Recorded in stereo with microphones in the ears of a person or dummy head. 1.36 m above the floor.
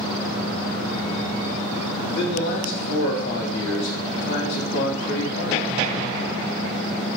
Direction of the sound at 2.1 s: 65° left (ahead or behind).